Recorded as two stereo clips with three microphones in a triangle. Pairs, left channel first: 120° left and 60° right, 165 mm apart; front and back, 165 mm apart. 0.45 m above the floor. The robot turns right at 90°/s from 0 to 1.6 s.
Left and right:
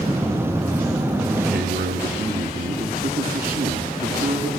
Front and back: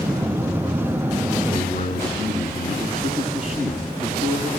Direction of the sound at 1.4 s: 65° right.